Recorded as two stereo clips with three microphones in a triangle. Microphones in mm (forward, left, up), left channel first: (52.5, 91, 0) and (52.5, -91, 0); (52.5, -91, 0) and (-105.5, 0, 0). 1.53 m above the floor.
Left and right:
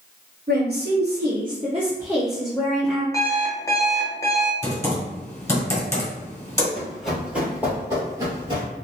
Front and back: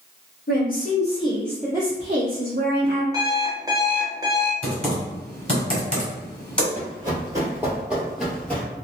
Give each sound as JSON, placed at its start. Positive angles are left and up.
{"t": 0.5, "sound": "a woman speaking", "azimuth_deg": -60, "distance_m": 1.0}
{"t": 3.1, "sound": "an alarm clock", "azimuth_deg": 130, "distance_m": 0.7}
{"t": 4.6, "sound": "typing on a keyboard", "azimuth_deg": 40, "distance_m": 1.4}
{"t": 6.8, "sound": "running footsteps", "azimuth_deg": 175, "distance_m": 1.8}